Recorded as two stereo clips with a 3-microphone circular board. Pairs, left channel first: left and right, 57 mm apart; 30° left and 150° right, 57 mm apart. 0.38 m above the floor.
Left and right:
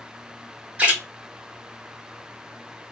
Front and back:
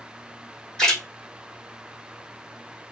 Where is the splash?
40° right, 1.5 m.